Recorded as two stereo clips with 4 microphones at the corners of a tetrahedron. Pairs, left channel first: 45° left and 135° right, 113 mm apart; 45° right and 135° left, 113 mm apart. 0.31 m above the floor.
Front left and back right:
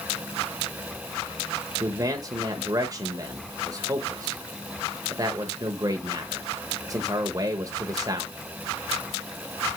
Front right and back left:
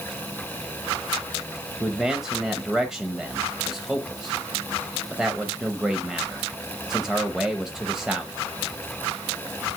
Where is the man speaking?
145° right, 0.9 m.